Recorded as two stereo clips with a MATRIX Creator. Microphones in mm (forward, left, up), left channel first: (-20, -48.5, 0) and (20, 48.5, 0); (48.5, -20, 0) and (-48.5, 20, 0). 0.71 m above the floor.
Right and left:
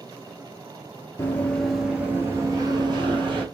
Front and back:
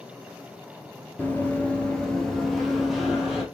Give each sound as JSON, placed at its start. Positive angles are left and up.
{"t": 1.2, "sound": "running footsteps", "azimuth_deg": -75, "distance_m": 0.7}